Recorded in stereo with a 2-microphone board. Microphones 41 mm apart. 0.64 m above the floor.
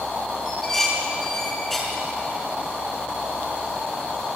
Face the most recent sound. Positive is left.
turn(degrees=10)  # may be behind; listen again after turning